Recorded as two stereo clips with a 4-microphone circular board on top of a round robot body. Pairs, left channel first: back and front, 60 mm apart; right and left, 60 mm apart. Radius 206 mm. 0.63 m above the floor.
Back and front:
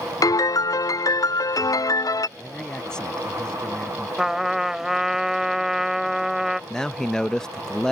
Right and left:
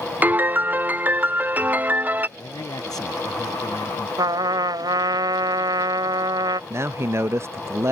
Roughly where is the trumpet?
Left.